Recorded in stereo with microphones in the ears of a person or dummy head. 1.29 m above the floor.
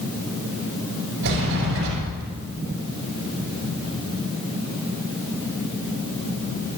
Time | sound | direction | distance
1.2 | a sliding door | 65° right (ahead or behind) | 6.5 m